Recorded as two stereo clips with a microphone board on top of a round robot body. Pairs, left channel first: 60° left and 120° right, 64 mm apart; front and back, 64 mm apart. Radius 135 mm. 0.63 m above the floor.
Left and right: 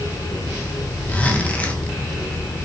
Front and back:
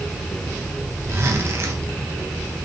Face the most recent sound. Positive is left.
turn(degrees=130)